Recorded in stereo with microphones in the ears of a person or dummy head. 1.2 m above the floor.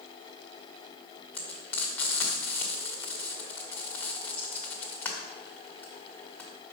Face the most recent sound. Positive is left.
turn(degrees=10)  # may be behind; listen again after turning